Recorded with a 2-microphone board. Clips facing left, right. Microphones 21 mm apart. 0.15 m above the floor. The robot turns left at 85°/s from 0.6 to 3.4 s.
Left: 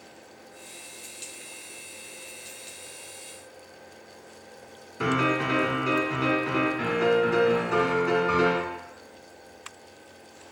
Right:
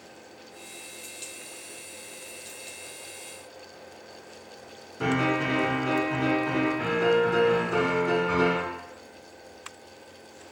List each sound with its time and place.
5.0 s a piano: 30° left (ahead or behind), 1.0 m